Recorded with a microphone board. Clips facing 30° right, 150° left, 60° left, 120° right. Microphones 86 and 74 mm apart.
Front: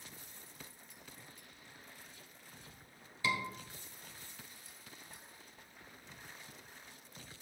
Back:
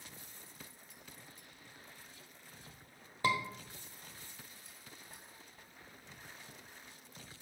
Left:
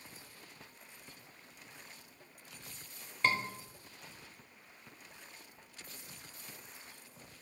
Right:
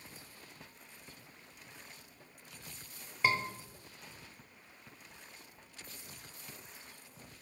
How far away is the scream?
About 1.2 m.